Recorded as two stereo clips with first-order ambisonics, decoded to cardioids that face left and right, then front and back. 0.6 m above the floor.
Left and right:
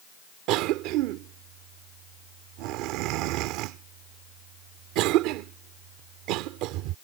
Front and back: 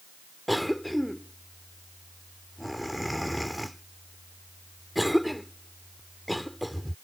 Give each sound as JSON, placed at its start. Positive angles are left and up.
{"t": 0.5, "sound": "a cough", "azimuth_deg": -90}